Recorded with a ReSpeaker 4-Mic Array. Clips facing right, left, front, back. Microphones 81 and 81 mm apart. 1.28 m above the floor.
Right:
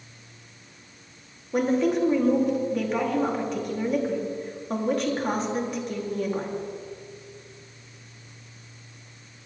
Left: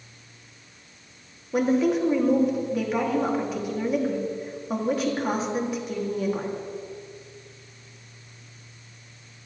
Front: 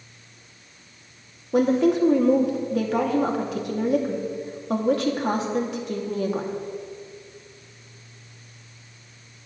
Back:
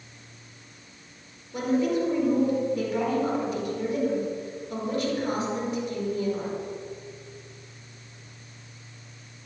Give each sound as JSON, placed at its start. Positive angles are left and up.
{"t": 1.5, "sound": "a woman speaking", "azimuth_deg": 5, "distance_m": 2.5}